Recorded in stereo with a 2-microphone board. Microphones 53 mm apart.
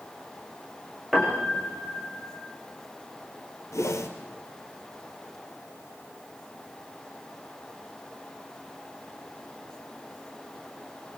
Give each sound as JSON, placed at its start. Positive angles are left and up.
{"t": 1.1, "sound": "a piano", "side_deg": 0, "distance_m": 8.0}
{"t": 3.7, "sound": "a whoosh", "side_deg": 65, "distance_m": 3.0}